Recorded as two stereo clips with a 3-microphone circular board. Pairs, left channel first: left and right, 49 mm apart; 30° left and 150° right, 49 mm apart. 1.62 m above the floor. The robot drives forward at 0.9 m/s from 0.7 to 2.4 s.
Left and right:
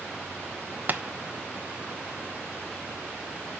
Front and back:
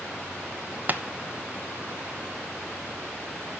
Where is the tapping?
115° right, 0.8 m; by 1.0 s 125° right, 0.9 m.